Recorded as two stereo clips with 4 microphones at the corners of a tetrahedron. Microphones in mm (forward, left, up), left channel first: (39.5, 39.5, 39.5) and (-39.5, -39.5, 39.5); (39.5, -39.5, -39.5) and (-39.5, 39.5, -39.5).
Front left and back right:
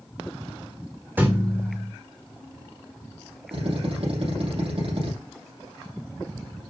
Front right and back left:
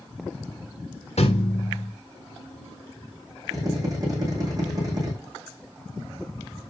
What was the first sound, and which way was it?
A thud, 60° right.